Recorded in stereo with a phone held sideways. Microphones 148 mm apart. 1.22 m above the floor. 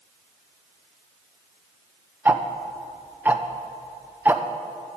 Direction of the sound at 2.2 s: 10° right (ahead or behind).